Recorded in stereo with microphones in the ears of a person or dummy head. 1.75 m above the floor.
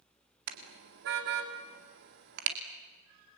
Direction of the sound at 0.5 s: 60° right (ahead or behind).